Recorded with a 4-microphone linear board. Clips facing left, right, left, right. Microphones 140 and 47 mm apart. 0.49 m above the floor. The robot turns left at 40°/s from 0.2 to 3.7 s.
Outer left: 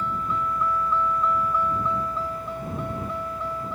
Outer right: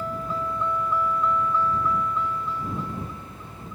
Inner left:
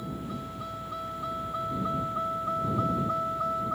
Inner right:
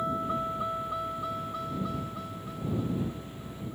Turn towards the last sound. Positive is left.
turn(degrees=80)